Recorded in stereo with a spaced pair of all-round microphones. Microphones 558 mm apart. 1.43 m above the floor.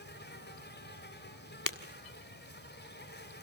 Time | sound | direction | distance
0.0 | an insect | 20° left (ahead or behind) | 2.5 m
1.7 | breaking glass | 35° left (ahead or behind) | 1.8 m